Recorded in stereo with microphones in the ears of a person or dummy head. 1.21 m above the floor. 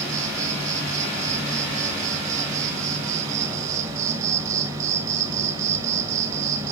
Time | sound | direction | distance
0.0 | an insect | 15° right (ahead or behind) | 1.6 m